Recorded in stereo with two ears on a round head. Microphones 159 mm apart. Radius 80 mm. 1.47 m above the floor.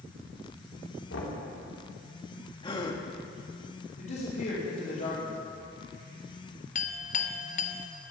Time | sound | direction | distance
1.1 | knocking | 85° left | 3.5 m
2.6 | a gasp | 30° left (ahead or behind) | 1.6 m
4.0 | a man speaking | 50° left (ahead or behind) | 4.5 m
6.8 | a clink | 45° left (ahead or behind) | 1.2 m